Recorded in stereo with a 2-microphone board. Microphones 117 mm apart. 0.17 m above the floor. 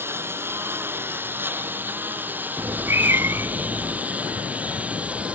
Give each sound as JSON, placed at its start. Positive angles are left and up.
{"t": 0.0, "sound": "a lawn mower", "side_deg": -20}
{"t": 2.6, "sound": "a cat meowing", "side_deg": -20}